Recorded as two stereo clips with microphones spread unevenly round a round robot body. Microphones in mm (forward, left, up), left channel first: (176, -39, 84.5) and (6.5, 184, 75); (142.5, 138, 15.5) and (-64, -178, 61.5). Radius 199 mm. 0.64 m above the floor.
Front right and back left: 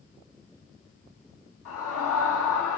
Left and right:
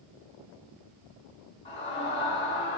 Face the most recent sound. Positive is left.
turn(degrees=-20)